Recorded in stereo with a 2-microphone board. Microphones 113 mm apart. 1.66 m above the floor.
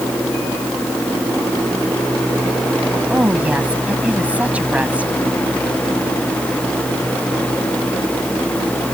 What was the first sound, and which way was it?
A woman speaking, 15° right (ahead or behind).